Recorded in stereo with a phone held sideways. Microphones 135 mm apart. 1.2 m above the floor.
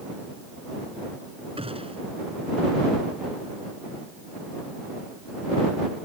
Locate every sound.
1.6 s a gunshot: 45° right (ahead or behind)